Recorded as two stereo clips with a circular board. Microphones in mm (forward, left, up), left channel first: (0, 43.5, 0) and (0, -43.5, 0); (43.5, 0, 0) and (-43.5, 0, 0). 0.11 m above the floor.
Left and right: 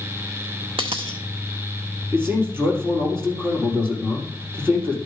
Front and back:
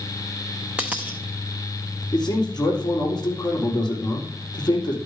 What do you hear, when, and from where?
0.8 s a dropped coin: 105° right, 0.8 m
2.1 s a man speaking: 30° right, 3.5 m